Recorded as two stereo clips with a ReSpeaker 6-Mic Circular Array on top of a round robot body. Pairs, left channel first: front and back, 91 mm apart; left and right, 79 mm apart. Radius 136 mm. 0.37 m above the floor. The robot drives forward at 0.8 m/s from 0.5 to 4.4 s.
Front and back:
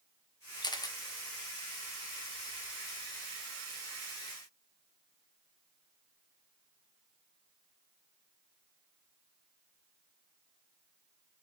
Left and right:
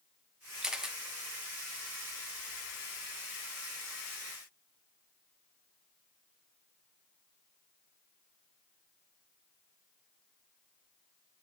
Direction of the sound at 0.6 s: 5° right.